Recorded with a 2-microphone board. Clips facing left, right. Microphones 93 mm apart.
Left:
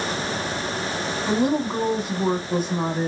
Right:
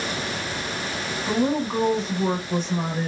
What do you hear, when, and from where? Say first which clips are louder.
1.3 s a woman speaking: left 1 dB; 5° left (ahead or behind), 0.7 m